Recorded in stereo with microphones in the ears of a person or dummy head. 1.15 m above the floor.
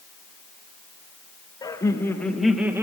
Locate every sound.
1.6 s laughter: 20° left (ahead or behind), 2.0 m; by 2.8 s 15° right (ahead or behind), 1.2 m